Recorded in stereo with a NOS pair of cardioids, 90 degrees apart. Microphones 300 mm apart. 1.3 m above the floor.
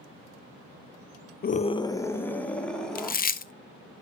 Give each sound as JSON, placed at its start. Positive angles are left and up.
{"t": 1.4, "sound": "a scream", "azimuth_deg": 30, "distance_m": 0.5}
{"t": 3.0, "sound": "chewing", "azimuth_deg": 30, "distance_m": 0.8}